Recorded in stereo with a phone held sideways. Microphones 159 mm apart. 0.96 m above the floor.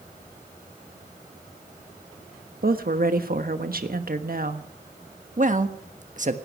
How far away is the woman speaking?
About 1.3 m.